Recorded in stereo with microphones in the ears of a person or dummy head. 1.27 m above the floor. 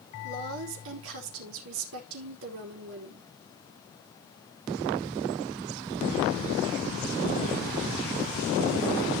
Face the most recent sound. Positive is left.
turn(degrees=-75)  # may be behind; listen again after turning